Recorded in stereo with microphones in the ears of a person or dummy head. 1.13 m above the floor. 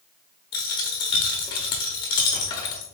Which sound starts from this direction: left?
A dropped coin, at 0.5 s.